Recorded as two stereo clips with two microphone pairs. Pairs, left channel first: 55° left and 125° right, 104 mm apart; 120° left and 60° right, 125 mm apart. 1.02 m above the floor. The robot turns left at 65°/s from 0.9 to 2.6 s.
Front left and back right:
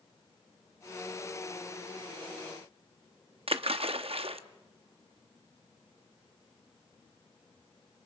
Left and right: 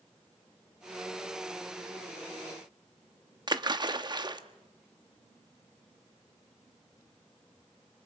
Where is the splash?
110° right, 0.8 m.